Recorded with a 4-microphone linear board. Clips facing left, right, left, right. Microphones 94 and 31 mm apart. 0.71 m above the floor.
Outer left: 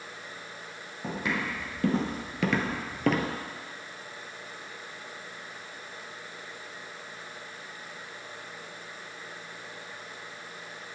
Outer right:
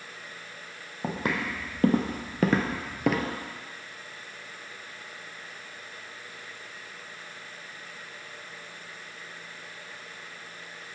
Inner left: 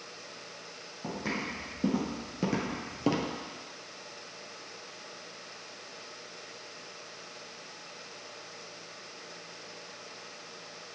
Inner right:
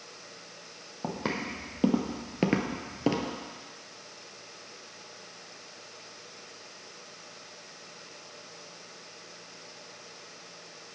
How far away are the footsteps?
About 2 m.